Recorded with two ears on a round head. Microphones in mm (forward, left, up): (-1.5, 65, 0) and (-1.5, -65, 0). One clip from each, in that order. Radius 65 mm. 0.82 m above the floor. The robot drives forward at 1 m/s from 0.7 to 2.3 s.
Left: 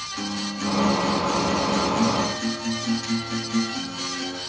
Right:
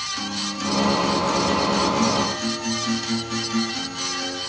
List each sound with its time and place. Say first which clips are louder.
0.2 s a guitar: right 2 dB; 30° right (ahead or behind), 5 m; by 4.4 s 20° right (ahead or behind), 6 m